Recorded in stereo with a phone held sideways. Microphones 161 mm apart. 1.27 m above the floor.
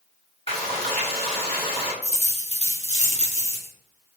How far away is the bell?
I don't hear a bell.